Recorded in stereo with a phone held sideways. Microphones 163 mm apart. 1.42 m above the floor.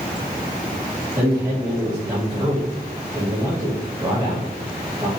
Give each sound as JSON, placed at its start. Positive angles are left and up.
{"t": 1.1, "sound": "a man speaking", "side_deg": -20, "distance_m": 3.0}